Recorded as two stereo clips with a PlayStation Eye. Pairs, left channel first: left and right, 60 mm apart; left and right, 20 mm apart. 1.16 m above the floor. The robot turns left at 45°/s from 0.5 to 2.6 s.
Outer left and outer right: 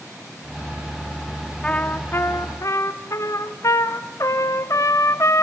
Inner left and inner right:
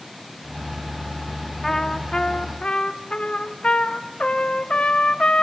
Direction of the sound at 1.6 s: 155° left.